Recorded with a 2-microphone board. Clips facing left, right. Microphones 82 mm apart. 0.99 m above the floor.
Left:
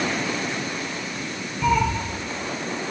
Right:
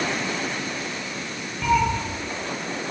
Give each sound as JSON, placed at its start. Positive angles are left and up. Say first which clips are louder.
{"t": 1.6, "sound": "a cat meowing", "louder": "even", "side_deg": 0, "distance_m": 3.5}